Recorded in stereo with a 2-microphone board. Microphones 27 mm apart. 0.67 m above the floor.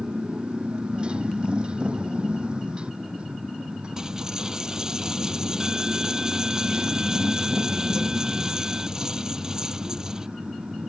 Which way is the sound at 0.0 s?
35° right (ahead or behind).